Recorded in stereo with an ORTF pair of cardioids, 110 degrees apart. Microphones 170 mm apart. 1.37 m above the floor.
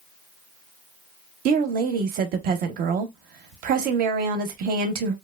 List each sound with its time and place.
1.4 s a woman speaking: 65° right, 0.7 m